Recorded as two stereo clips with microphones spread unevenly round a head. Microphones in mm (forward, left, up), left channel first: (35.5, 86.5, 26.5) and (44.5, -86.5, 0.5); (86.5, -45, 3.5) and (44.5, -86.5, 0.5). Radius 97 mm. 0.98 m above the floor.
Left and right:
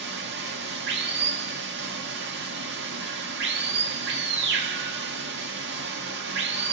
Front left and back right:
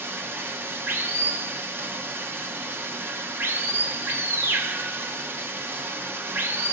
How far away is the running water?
About 1.0 m.